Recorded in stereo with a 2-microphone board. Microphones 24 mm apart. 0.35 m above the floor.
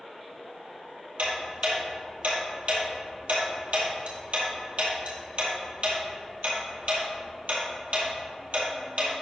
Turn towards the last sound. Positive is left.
turn(degrees=-65)  # may be behind; listen again after turning